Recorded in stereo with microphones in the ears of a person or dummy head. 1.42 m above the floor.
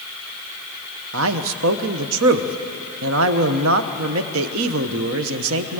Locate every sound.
1.1 s a man speaking: 75° right (ahead or behind), 1.0 m